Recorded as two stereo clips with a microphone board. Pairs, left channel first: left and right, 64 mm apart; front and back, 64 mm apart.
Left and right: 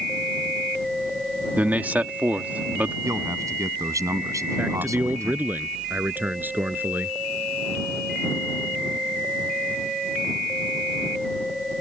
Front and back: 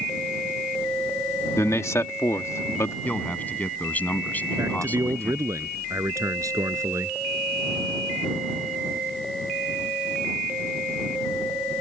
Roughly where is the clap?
No clap in this recording.